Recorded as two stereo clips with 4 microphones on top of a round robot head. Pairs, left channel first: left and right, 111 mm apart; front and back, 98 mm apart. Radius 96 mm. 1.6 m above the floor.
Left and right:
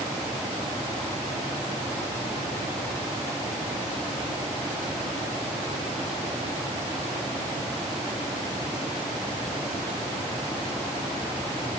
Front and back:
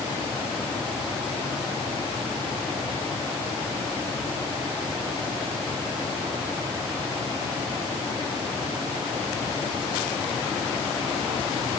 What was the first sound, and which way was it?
Only background noise.